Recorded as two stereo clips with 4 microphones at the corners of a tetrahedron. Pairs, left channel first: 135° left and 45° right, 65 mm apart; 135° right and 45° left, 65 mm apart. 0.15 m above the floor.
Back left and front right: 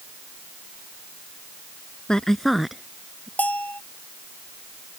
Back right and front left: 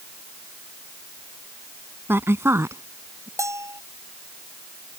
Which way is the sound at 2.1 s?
65° left.